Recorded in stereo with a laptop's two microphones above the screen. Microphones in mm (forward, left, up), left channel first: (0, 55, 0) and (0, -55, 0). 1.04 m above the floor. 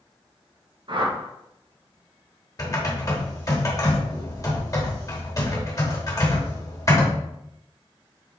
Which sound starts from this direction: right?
A whoosh, at 0.9 s.